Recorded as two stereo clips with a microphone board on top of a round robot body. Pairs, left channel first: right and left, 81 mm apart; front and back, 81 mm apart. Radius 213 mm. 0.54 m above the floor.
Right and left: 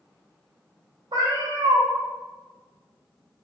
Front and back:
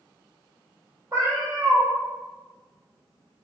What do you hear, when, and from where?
1.1 s a cat meowing: 120° left, 0.6 m